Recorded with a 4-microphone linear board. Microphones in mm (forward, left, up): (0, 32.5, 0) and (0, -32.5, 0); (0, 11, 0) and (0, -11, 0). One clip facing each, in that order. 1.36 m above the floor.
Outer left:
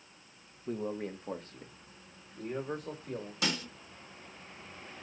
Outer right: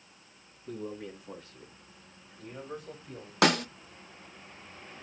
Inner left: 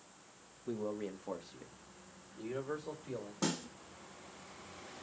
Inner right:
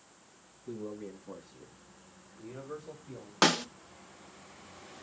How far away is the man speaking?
About 1.5 m.